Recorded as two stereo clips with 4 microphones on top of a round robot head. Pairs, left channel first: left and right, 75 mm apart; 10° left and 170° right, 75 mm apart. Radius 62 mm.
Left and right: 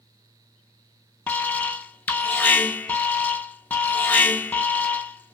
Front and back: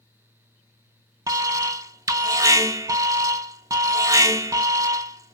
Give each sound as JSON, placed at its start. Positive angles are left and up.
{"t": 1.3, "sound": "an alarm", "azimuth_deg": 155, "distance_m": 0.5}